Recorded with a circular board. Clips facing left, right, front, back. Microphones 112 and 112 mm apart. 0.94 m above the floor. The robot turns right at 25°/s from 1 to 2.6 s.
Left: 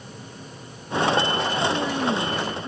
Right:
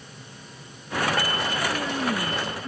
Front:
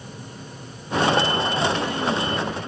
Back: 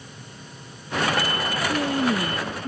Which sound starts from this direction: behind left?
A woman speaking, at 1.7 s.